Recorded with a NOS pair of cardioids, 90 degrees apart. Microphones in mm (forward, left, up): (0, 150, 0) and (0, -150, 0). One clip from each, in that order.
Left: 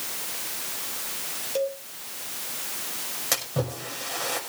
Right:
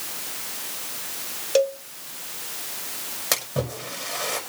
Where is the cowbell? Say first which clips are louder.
Right 7 dB; 60° right, 1.2 m.